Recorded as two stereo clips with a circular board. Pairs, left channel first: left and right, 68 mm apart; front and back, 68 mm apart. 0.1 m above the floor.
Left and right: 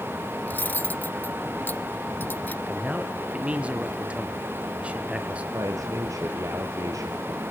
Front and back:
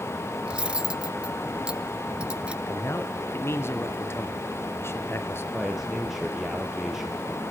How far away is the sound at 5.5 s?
About 2.5 m.